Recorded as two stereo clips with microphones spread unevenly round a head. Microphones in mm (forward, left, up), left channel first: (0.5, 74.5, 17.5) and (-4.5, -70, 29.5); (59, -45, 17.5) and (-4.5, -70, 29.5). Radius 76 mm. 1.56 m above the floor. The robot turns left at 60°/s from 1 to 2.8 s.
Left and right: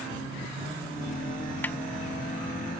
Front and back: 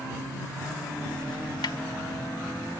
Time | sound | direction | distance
1.6 | a snare drum | 10° left | ?